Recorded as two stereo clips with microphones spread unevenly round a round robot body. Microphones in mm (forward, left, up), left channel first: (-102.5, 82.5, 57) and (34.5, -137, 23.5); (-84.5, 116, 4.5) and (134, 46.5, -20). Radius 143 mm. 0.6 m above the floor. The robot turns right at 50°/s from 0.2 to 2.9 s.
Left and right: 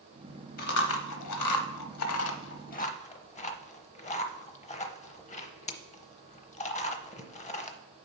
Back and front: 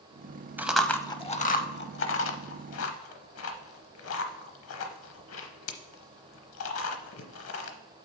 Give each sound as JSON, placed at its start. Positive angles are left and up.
{"t": 0.6, "sound": "chewing", "azimuth_deg": 65, "distance_m": 0.9}